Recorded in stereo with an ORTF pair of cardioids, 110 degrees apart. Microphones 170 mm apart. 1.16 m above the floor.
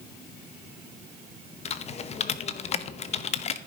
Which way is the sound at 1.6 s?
40° left.